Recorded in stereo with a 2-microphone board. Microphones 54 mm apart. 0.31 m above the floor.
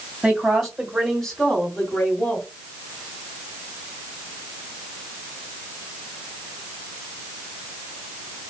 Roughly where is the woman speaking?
Centre.